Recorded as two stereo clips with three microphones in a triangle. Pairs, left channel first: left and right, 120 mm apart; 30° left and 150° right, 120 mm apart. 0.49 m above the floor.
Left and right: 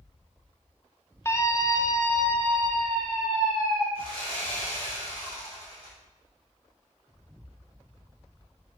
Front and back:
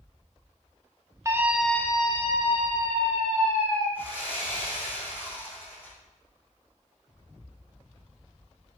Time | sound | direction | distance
1.2 | a scream | 150° left | 1.0 m
4.0 | sawing | 45° right | 4 m